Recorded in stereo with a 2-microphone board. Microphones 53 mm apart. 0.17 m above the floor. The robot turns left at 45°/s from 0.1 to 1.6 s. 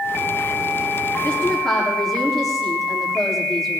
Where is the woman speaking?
20° left (ahead or behind), 8 m; by 3.8 s 5° left (ahead or behind), 8 m.